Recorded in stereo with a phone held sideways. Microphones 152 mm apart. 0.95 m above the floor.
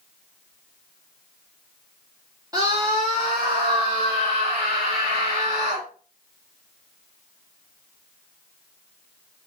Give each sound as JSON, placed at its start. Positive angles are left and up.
{"t": 2.5, "sound": "a scream", "side_deg": -25, "distance_m": 1.8}